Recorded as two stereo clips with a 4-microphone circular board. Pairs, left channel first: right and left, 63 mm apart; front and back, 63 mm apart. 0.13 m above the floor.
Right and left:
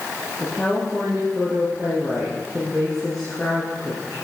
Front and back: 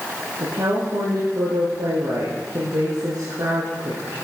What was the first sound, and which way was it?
A woman speaking, 170° right.